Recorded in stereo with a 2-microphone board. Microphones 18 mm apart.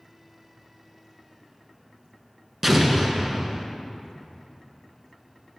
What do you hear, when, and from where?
2.6 s an explosion: 10° right (ahead or behind), 0.9 m